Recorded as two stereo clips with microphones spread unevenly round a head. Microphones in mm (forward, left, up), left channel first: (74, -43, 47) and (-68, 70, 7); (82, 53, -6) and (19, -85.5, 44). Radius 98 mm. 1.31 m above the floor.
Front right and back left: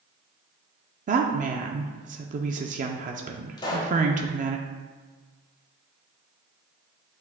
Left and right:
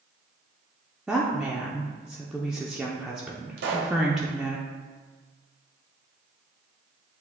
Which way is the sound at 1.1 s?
145° left.